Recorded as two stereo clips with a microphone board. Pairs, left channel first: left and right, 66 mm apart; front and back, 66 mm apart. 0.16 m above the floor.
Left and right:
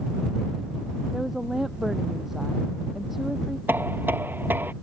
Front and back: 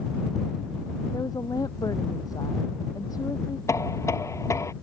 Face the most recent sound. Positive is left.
turn(degrees=-35)